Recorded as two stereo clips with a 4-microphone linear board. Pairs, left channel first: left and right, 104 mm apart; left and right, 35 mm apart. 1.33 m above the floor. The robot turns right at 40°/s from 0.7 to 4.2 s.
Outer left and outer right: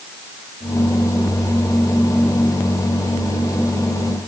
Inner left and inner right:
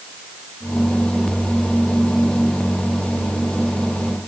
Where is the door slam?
No door slam in this recording.